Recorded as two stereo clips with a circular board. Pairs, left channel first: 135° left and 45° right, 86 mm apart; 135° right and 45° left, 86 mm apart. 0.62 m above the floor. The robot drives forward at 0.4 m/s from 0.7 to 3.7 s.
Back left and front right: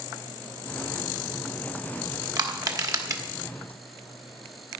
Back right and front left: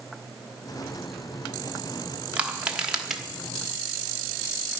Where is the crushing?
25° right, 1.4 m; by 3.2 s 35° right, 1.2 m.